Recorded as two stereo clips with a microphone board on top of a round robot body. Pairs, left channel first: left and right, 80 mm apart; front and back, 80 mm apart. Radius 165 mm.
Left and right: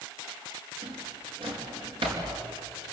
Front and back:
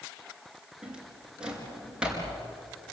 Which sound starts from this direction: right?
A drawer, at 0.8 s.